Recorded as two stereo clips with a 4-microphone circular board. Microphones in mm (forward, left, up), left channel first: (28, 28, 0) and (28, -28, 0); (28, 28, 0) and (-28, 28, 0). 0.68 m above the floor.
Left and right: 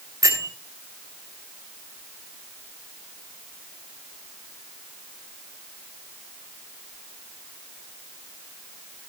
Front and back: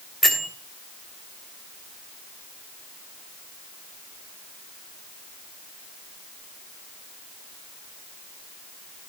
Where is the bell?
85° right, 3 m.